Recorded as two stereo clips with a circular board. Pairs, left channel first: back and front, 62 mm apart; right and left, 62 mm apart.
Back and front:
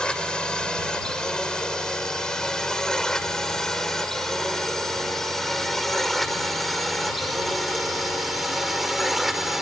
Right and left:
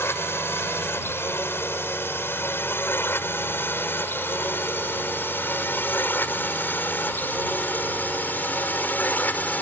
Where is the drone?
110° right; by 9.6 s 80° right.